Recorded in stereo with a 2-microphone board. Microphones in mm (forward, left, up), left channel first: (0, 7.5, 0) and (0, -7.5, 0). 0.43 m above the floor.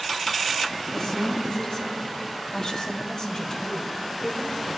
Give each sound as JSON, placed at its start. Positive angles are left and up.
{"t": 0.9, "sound": "a woman speaking", "side_deg": 40, "distance_m": 3.0}